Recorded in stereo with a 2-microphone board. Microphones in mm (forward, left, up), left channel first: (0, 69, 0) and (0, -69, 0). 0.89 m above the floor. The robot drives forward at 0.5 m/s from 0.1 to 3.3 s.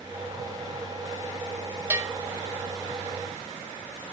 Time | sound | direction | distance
1.9 | a bell | 15° right (ahead or behind) | 2 m